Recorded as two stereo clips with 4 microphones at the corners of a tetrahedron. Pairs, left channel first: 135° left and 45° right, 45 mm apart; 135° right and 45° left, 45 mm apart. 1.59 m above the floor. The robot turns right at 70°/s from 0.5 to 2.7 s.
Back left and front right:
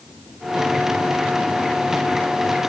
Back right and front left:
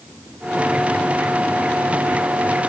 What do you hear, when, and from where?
Only background noise.